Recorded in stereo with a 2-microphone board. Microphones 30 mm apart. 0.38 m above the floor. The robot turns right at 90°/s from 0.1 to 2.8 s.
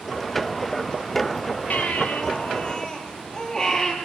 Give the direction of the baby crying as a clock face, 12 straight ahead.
10 o'clock.